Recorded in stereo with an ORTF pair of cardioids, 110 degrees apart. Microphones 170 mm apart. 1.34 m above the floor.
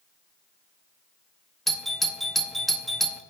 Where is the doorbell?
Straight ahead, 0.7 m.